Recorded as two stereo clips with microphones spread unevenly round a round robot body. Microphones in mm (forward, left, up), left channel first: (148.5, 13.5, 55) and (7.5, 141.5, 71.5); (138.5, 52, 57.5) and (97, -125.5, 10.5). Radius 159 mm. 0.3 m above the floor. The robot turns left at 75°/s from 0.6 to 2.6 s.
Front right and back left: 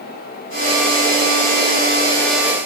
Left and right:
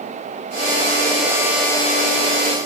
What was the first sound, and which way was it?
Only background noise.